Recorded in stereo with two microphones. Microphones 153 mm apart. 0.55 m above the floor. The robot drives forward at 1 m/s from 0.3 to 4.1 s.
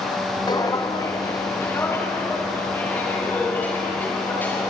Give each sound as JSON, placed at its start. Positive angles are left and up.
{"t": 0.5, "sound": "footsteps", "side_deg": 25, "distance_m": 1.8}